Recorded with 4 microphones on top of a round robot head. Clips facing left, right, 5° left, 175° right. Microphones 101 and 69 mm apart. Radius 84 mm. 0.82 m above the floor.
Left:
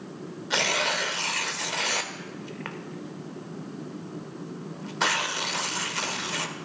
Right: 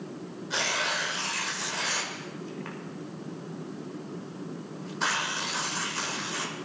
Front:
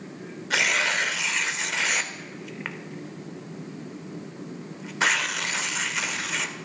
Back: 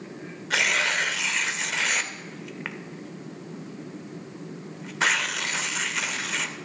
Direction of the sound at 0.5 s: 90° left.